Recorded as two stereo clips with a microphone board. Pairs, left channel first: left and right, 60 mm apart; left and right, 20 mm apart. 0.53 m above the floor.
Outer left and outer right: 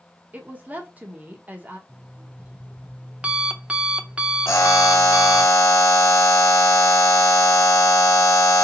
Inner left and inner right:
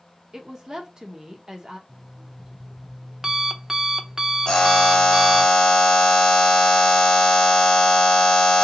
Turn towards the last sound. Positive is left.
turn(degrees=55)  # may be behind; listen again after turning